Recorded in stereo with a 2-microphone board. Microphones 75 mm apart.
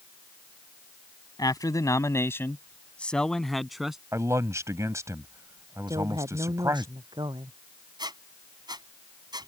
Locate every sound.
1.4 s a man speaking: 60° left (ahead or behind); by 4.0 s 5° right (ahead or behind)
4.1 s a man speaking: 45° right (ahead or behind)
5.9 s a woman speaking: 85° right
8.0 s a squeak: 75° right (ahead or behind)